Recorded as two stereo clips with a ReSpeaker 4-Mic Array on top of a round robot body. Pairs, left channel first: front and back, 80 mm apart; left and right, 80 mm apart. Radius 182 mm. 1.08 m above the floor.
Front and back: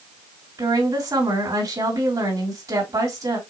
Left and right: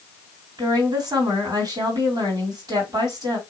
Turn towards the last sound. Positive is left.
turn(degrees=-135)